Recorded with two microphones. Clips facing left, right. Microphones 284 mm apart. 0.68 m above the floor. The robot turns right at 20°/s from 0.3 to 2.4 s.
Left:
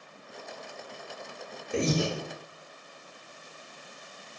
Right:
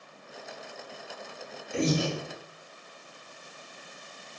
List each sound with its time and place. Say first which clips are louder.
1.7 s breathing: even; 55° left (ahead or behind), 0.9 m; by 2.1 s 50° left (ahead or behind), 0.9 m